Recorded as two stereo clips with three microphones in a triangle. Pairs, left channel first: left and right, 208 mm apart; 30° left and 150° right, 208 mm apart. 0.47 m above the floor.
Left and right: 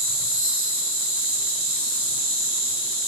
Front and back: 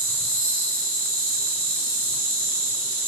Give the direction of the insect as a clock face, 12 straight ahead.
5 o'clock.